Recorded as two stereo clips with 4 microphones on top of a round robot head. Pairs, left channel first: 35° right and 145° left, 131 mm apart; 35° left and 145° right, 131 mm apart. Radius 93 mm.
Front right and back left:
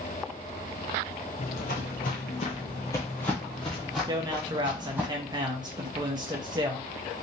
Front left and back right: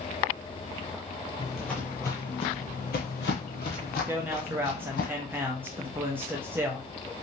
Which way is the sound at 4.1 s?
160° left.